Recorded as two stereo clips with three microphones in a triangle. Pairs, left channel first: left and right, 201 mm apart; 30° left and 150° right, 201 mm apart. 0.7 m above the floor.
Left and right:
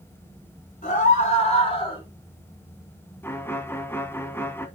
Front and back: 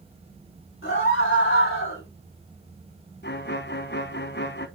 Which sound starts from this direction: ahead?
A violin, at 3.2 s.